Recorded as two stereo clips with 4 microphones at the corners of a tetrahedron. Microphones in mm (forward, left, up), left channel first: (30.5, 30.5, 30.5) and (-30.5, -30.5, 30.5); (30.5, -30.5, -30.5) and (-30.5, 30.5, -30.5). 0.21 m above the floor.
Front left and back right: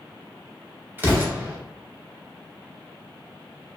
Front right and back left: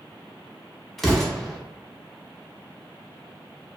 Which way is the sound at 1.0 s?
130° right.